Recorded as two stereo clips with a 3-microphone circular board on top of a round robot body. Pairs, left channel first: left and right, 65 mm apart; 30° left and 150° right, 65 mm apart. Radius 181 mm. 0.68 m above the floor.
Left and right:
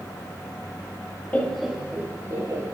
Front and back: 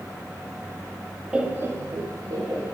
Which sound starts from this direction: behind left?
Laughter, at 1.3 s.